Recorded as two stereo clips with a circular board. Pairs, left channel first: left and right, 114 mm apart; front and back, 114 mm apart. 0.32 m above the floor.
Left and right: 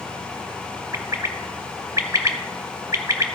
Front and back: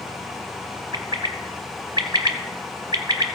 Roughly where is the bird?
Behind right.